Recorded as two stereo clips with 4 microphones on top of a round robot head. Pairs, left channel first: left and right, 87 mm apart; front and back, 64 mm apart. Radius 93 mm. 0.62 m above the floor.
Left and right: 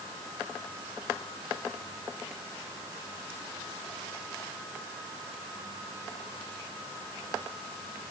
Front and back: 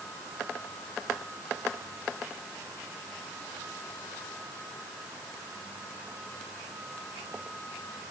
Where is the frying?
No frying in this recording.